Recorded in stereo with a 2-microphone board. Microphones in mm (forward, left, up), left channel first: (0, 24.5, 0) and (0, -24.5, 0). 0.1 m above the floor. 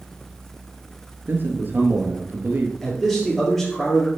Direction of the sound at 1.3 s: 40° right (ahead or behind).